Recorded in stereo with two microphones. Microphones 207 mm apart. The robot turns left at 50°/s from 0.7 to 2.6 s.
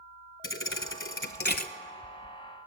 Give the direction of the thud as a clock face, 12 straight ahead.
9 o'clock.